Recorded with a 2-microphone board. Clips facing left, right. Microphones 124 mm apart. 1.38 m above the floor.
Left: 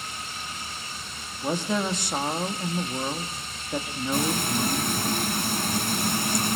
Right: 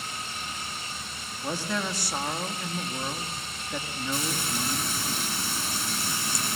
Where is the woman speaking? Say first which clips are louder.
Left 4 dB; 20° left (ahead or behind), 2 m.